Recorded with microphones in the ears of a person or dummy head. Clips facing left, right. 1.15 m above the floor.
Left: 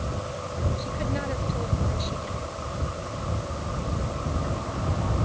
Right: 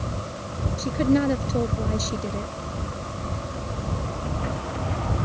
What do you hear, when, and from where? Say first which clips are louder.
0.8 s a woman speaking: right 10 dB; 55° right (ahead or behind)